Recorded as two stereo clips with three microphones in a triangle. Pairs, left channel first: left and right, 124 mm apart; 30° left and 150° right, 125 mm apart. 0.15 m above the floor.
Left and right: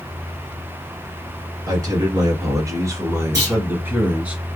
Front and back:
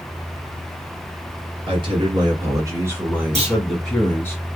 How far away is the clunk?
About 1.9 m.